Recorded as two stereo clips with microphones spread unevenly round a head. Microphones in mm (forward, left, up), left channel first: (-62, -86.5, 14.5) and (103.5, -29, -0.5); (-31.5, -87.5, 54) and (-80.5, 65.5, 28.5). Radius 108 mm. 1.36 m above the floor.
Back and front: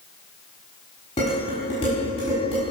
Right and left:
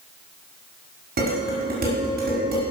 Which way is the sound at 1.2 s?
130° left.